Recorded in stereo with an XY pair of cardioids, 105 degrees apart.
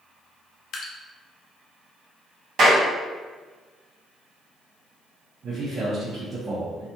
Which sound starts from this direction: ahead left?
Dripping, at 0.7 s.